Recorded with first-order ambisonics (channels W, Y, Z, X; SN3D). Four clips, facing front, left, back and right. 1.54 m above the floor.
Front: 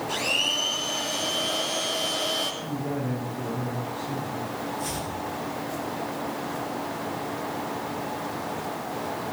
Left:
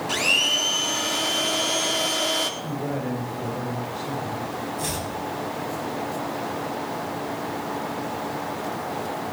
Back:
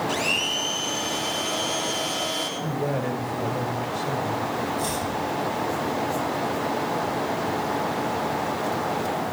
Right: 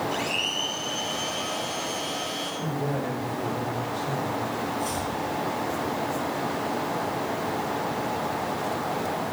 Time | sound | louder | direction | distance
0.1 | a blender | left 6 dB, front 2 dB | 100° left | 4 m
2.6 | a man speaking | even, back 4 dB | 175° left | 8 m
4.8 | chopping | even, back 4 dB | 125° left | 9.5 m